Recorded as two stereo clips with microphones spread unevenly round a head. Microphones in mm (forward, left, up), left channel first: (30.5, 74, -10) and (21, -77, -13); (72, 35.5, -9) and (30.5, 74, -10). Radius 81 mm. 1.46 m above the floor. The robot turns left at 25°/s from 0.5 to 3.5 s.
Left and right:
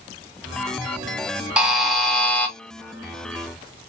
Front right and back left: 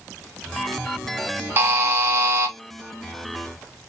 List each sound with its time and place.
1.6 s a buzzer: 175° right, 0.7 m; by 2.5 s 160° left, 0.7 m